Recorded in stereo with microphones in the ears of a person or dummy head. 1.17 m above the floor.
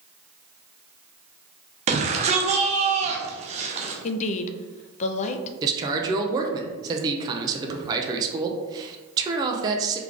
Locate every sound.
1.9 s a shout: 25° right (ahead or behind), 0.7 m
4.0 s a woman speaking: 40° left (ahead or behind), 0.5 m
5.6 s a man speaking: 15° right (ahead or behind), 0.5 m